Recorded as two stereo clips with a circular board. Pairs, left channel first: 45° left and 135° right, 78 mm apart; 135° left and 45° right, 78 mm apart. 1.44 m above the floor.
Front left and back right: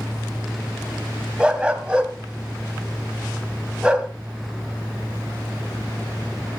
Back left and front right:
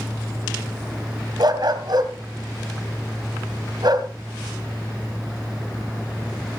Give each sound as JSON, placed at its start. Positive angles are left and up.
{"t": 1.4, "sound": "a dog barking", "azimuth_deg": -55, "distance_m": 2.5}